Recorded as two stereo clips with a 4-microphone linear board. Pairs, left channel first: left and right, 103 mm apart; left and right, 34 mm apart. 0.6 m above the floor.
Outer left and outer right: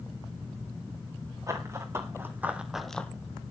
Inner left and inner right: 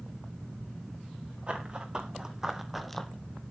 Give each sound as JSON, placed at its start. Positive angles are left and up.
{"t": 1.5, "sound": "running footsteps", "side_deg": -30, "distance_m": 2.5}